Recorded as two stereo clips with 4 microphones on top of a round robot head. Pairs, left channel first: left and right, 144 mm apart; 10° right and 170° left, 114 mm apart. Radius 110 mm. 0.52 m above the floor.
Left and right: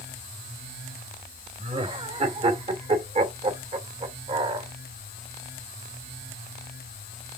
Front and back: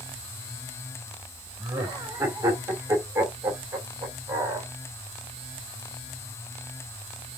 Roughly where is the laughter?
Behind right.